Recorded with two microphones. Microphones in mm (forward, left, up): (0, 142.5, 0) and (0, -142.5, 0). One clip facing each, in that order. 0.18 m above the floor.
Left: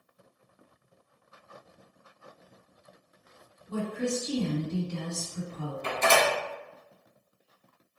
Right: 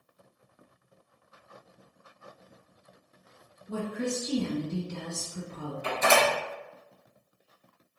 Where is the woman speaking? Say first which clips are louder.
Left 1 dB; 10° right (ahead or behind), 2.0 m.